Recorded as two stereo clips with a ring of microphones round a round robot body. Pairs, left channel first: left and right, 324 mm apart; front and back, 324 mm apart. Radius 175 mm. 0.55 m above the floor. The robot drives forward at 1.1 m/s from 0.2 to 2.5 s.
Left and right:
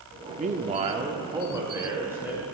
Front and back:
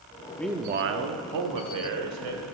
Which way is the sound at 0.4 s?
65° right.